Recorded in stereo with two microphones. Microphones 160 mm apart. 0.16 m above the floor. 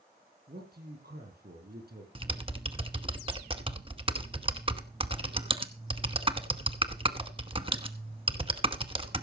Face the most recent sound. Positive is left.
turn(degrees=-35)  # may be behind; listen again after turning